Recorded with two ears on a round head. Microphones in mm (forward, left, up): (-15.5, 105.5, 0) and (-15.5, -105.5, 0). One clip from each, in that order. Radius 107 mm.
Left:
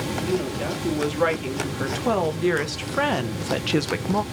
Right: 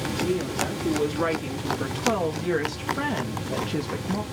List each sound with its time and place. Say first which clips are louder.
0.2 s a woman speaking: right 1 dB; 20° left (ahead or behind), 3 m; by 4.2 s 80° left, 0.8 m